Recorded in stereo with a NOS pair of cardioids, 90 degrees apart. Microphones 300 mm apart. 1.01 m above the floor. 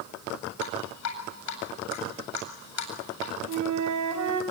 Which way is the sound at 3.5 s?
65° right.